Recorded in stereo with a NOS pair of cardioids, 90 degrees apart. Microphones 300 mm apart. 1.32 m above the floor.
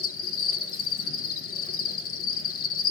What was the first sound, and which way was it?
An insect, 50° left.